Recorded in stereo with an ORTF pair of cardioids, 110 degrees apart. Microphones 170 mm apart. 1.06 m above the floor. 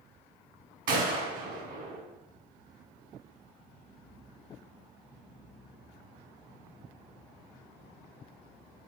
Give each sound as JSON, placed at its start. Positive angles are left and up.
{"t": 0.9, "sound": "a gunshot", "azimuth_deg": -60, "distance_m": 2.5}